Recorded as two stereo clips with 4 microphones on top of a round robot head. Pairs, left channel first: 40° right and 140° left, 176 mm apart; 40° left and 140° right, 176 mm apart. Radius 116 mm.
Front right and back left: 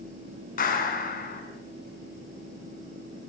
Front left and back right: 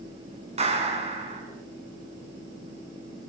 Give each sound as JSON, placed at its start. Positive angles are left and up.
{"t": 0.6, "sound": "a clap", "azimuth_deg": -85, "distance_m": 5.5}